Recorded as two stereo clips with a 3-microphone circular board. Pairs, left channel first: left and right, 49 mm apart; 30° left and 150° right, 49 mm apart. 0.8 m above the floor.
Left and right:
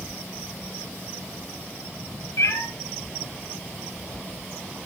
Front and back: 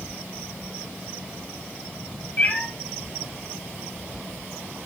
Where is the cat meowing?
80° left, 2 m.